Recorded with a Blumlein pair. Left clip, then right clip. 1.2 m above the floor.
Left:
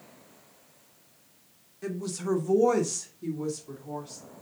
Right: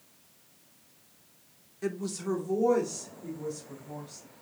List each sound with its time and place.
1.8 s a woman speaking: 10° right, 1.0 m; by 4.2 s 50° left, 3 m